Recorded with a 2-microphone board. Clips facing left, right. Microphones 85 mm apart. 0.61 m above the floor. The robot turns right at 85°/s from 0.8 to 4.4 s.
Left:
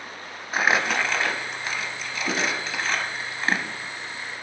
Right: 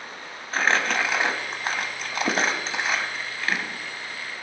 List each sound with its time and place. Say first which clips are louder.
0.5 s crumpling: left 1 dB; 10° left (ahead or behind), 0.7 m; by 3.7 s 45° left (ahead or behind), 0.7 m